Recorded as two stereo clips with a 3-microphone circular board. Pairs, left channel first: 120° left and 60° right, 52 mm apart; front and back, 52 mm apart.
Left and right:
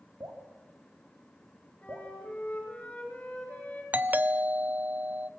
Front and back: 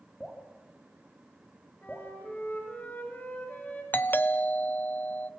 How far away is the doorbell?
About 0.7 m.